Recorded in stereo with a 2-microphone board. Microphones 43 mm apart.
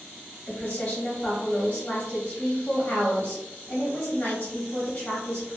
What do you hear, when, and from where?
0.5 s a woman speaking: 30° left (ahead or behind), 0.9 m